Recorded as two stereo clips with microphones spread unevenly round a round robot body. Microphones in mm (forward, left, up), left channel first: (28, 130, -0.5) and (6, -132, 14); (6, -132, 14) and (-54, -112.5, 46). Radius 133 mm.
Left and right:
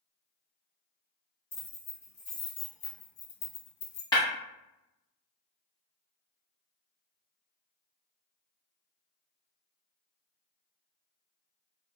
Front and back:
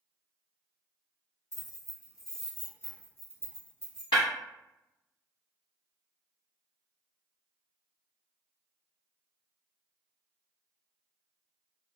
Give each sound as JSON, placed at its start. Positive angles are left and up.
{"t": 1.5, "sound": "keys jangling", "azimuth_deg": 15, "distance_m": 1.5}
{"t": 4.1, "sound": "breaking glass", "azimuth_deg": 10, "distance_m": 1.1}